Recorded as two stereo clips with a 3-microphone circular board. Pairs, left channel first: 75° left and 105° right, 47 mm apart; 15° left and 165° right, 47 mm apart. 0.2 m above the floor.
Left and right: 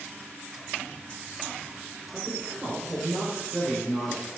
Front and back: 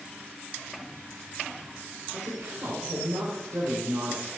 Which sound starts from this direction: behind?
A woman speaking, at 2.1 s.